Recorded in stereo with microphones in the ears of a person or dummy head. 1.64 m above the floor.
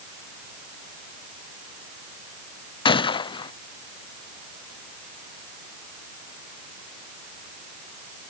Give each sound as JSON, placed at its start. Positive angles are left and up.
{"t": 2.9, "sound": "a gunshot", "side_deg": 30}